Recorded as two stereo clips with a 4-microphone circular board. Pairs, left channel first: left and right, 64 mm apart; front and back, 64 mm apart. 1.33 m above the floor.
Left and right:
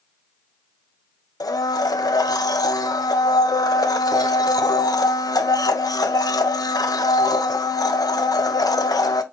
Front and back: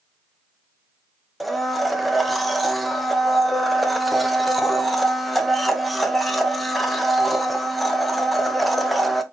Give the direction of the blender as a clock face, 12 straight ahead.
9 o'clock.